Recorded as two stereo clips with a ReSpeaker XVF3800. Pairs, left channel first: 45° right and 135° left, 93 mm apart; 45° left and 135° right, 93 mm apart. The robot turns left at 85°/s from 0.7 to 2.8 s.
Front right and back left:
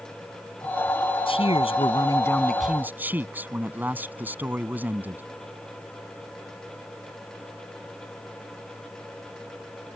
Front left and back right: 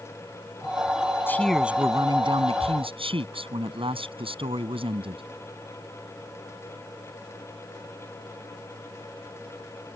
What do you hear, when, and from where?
1.3 s a man speaking: 20° right; by 5.2 s 155° right